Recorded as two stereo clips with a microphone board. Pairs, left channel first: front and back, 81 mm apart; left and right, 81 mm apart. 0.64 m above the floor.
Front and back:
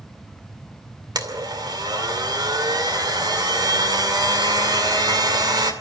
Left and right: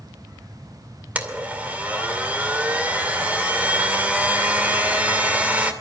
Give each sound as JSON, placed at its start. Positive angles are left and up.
{"t": 1.1, "sound": "a blender", "azimuth_deg": -160, "distance_m": 2.5}